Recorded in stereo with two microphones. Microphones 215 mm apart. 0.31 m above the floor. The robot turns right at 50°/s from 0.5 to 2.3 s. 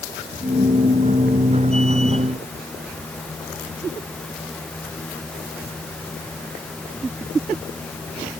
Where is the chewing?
I don't hear chewing.